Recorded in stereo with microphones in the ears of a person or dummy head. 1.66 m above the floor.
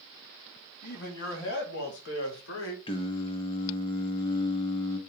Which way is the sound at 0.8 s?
60° left (ahead or behind).